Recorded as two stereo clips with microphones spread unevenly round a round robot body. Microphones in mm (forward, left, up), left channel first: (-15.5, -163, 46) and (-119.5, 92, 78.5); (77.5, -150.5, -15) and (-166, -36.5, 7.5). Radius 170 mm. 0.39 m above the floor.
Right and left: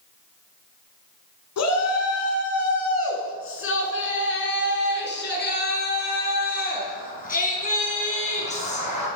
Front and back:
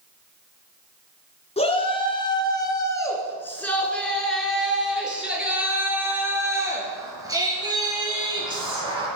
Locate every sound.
1.6 s a shout: 90° right, 5 m; by 9.1 s 135° right, 9 m